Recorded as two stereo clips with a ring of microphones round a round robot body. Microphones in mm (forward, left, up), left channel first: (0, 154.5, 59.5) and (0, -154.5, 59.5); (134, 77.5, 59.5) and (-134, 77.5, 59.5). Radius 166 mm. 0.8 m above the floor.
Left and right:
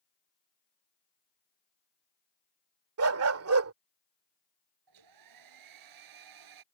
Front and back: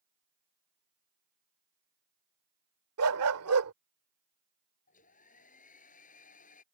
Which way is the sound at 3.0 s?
135° right.